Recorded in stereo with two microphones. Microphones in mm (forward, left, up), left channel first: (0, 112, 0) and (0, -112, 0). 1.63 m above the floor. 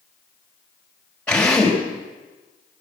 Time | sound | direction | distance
1.3 | a drill | 5° left (ahead or behind) | 4.5 m